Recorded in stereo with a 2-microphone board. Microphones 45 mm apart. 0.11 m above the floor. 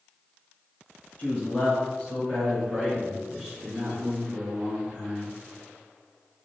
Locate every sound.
1.2 s a man speaking: 30° left (ahead or behind), 1.6 m; by 5.3 s 25° right (ahead or behind), 2.0 m